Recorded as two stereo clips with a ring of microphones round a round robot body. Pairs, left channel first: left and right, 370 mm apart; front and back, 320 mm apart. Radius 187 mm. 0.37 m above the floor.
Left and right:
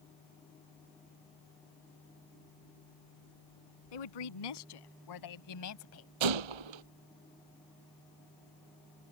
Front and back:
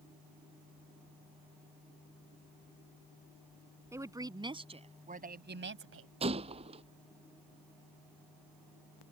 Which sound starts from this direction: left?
A woman speaking, at 3.9 s.